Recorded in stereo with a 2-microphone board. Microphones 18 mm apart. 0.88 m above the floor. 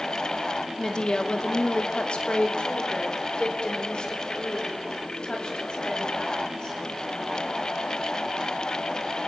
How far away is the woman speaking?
About 1.7 m.